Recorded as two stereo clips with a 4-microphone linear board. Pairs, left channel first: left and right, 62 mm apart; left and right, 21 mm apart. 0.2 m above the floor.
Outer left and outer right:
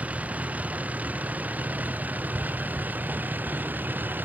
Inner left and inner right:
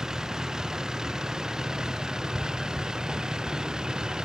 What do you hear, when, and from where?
0.0 s a vehicle: 20° right (ahead or behind); by 4.3 s 30° right (ahead or behind)